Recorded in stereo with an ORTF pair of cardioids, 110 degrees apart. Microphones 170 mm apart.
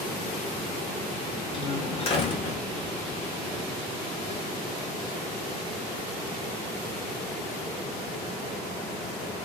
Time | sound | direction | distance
1.5 | a door slam | 35° left | 1.9 m